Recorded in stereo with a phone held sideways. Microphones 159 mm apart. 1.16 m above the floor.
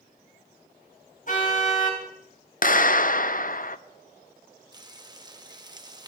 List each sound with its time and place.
1.3 s a car horn: 55° left (ahead or behind), 4 m
2.6 s a clap: 55° left (ahead or behind), 0.6 m
4.7 s frying: 25° right (ahead or behind), 1.1 m